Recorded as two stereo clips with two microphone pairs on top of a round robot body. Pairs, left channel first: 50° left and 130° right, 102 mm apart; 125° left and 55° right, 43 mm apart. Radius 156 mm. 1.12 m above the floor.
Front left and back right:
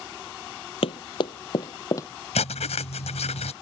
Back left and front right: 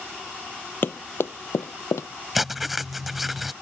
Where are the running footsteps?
80° left; by 2.1 s 110° left.